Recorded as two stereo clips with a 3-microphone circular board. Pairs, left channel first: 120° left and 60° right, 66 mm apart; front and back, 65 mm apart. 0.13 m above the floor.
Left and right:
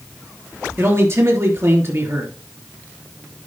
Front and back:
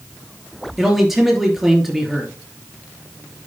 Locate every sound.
0.8 s a man speaking: 95° right, 3 m